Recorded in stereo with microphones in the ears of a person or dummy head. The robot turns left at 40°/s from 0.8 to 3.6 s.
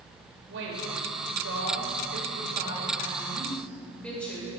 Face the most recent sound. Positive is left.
turn(degrees=170)